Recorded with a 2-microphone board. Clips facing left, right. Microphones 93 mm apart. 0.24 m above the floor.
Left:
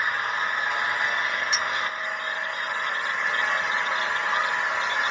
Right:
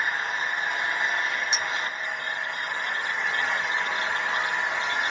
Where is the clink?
25° right (ahead or behind), 0.5 m.